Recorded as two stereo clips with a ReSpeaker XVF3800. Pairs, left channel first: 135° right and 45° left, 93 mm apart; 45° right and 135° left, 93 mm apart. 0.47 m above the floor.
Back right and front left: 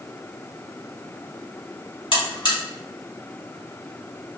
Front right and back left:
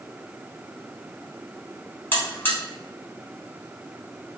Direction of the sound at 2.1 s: 115° right.